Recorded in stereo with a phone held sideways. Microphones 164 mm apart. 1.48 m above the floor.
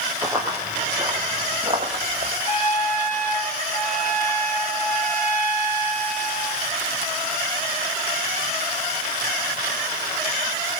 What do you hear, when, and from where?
0.2 s running footsteps: 5° right (ahead or behind), 2 m; by 2.3 s 45° right (ahead or behind), 4 m
2.4 s a trumpet: 55° left (ahead or behind), 3.5 m